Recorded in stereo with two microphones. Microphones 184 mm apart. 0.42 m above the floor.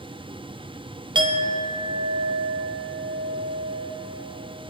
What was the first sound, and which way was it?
A clink, 25° right (ahead or behind).